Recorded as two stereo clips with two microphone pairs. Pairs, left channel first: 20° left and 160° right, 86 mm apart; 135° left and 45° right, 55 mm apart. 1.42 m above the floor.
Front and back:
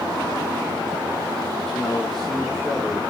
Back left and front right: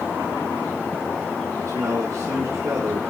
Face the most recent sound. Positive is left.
turn(degrees=-65)